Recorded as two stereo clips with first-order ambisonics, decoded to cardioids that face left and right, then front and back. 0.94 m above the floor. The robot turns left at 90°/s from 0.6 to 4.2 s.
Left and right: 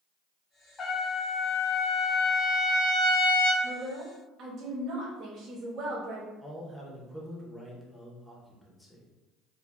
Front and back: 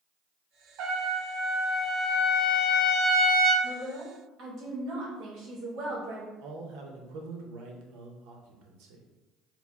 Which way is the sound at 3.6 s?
85° right.